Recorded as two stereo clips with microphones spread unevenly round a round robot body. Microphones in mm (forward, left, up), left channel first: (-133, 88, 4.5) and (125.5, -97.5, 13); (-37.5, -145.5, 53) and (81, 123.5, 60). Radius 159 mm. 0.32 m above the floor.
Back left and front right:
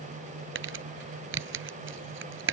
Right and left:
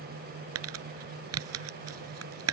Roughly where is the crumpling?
Ahead.